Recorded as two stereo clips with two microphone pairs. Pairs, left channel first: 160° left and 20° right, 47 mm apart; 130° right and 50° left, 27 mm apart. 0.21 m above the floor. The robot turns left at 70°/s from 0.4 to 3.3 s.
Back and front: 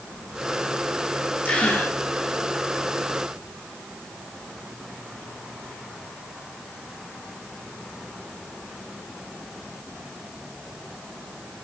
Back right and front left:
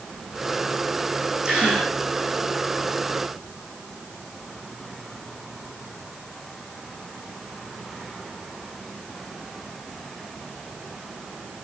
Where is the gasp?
110° left, 6 m; by 1.9 s 75° left, 6 m.